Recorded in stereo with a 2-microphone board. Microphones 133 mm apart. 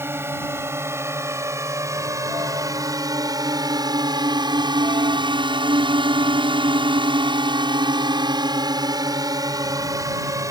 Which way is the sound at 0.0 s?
20° right (ahead or behind).